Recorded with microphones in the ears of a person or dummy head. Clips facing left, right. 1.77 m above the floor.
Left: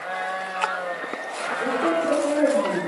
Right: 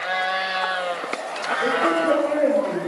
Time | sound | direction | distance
1.6 | a woman speaking | 50° left (ahead or behind) | 6.5 m